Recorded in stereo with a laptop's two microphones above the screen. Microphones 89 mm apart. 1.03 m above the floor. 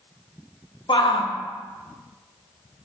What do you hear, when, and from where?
0.9 s a shout: 65° left (ahead or behind), 1.2 m